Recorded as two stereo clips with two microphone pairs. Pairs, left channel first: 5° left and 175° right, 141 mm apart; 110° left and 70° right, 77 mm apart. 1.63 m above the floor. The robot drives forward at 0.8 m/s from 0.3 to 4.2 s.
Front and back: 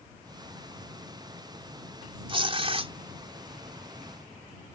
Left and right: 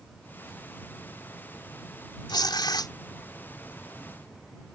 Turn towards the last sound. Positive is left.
turn(degrees=145)